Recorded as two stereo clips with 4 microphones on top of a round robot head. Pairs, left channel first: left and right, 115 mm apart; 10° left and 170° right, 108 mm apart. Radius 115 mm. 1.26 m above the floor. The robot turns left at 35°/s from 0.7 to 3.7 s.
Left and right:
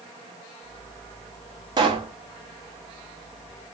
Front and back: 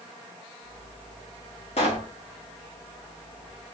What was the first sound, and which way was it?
A pop, 40° right.